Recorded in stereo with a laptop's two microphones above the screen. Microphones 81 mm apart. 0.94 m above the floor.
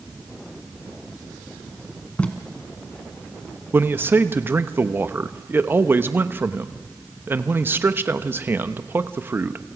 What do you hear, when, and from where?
2.2 s tape being pulled: 15° left (ahead or behind), 2.5 m
3.7 s a man speaking: 30° right (ahead or behind), 0.9 m